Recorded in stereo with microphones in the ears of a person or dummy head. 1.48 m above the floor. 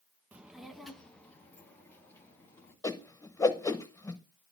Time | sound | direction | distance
0.3 | a child speaking | 5° right (ahead or behind) | 1.0 m
2.8 | a whoosh | 15° left (ahead or behind) | 1.0 m